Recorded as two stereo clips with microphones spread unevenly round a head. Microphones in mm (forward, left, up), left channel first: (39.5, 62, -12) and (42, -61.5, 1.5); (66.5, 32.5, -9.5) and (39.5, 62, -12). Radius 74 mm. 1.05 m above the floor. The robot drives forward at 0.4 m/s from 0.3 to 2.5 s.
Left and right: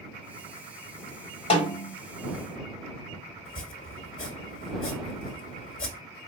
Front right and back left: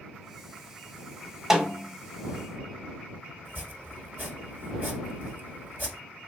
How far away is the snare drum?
About 1.3 m.